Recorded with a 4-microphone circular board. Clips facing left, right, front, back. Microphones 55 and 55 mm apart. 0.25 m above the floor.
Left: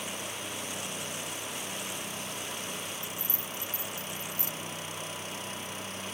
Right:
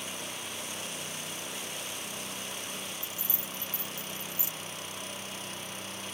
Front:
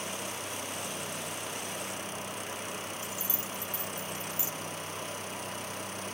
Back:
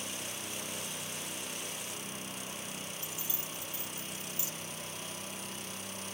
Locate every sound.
3.0 s keys jangling: 60° left, 2 m